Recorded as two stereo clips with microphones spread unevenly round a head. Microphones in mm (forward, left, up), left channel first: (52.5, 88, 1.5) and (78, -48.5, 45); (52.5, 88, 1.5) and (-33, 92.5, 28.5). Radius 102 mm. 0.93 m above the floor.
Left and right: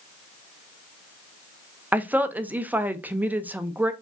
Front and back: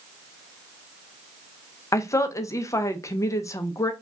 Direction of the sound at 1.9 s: 10° left.